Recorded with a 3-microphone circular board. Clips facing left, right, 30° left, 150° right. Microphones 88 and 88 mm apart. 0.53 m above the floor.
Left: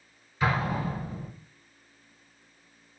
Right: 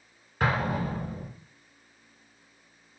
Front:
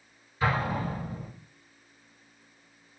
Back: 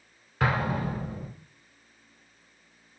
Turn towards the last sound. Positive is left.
turn(degrees=-130)